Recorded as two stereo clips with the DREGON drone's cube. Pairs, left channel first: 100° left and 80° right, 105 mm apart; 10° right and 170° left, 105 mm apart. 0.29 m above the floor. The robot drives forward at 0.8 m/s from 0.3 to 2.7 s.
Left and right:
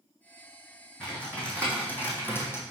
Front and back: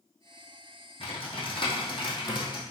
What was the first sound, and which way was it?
Typing on a keyboard, 20° left.